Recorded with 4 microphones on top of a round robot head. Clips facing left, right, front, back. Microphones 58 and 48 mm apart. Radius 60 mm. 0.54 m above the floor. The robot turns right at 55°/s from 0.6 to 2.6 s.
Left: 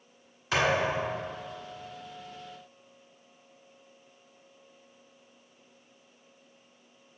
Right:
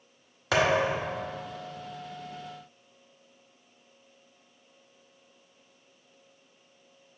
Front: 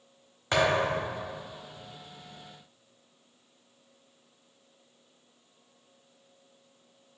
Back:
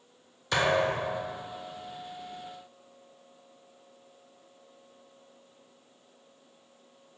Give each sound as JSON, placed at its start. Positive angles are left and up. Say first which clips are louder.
{"t": 0.5, "sound": "a thud", "louder": "right 2 dB, even", "azimuth_deg": -65, "distance_m": 0.8}